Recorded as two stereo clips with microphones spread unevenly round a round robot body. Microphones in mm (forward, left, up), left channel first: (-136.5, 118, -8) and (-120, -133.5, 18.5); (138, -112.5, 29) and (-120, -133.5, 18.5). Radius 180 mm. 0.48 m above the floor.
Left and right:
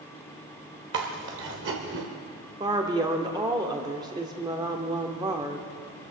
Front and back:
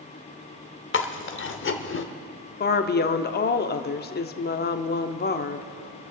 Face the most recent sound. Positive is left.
turn(degrees=-10)